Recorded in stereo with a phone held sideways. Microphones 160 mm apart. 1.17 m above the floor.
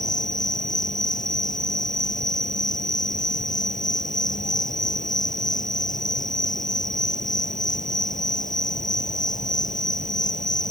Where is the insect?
55° left (ahead or behind).